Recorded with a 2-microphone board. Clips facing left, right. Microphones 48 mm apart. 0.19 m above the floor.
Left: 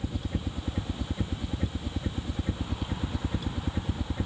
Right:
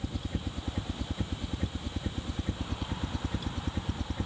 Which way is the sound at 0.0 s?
5° left (ahead or behind).